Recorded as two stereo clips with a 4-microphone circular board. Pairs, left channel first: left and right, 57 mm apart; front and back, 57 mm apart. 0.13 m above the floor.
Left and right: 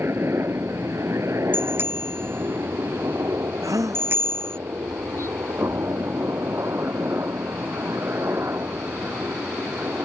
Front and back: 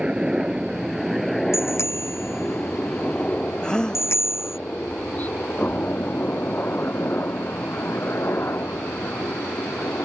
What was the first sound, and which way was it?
A helicopter, 110° right.